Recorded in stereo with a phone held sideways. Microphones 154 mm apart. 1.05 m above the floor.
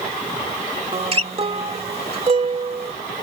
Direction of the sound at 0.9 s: 40° right (ahead or behind).